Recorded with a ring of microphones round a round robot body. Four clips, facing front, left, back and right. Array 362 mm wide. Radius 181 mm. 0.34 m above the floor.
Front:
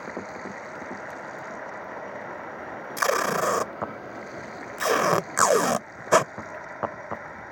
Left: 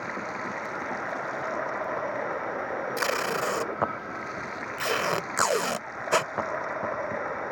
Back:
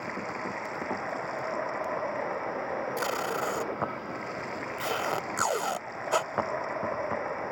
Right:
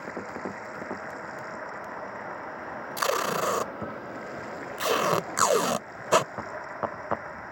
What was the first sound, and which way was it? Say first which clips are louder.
Running water: left 2 dB, back 1 dB; 125° left.